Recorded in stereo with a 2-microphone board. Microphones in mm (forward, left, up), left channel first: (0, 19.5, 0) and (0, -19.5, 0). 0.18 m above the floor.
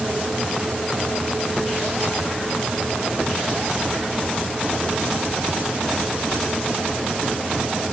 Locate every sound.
Only background noise.